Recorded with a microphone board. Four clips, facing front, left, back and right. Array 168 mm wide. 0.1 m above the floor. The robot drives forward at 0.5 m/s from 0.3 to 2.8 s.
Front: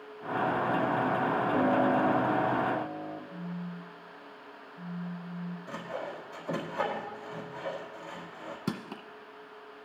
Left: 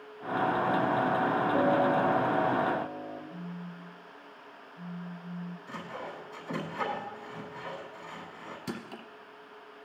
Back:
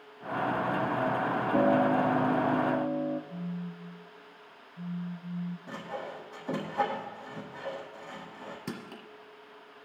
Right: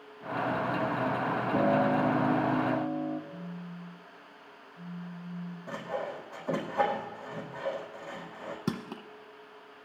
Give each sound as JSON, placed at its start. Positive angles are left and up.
{"t": 1.5, "sound": "a piano", "azimuth_deg": -145, "distance_m": 3.5}
{"t": 3.3, "sound": "a phone buzzing", "azimuth_deg": 160, "distance_m": 4.5}
{"t": 5.7, "sound": "sawing", "azimuth_deg": -110, "distance_m": 4.0}
{"t": 8.7, "sound": "crushing", "azimuth_deg": -70, "distance_m": 1.3}